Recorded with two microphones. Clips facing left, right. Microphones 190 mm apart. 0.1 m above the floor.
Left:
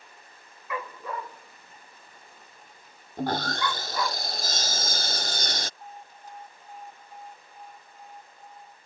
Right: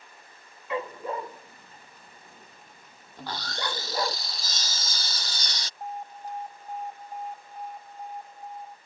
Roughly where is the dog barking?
Right.